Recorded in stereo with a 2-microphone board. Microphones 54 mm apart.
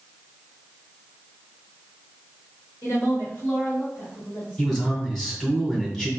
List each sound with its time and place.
2.8 s a woman speaking: 50° left (ahead or behind), 1.6 m; by 4.8 s 30° left (ahead or behind), 2 m
4.6 s a man speaking: 10° left (ahead or behind), 1.9 m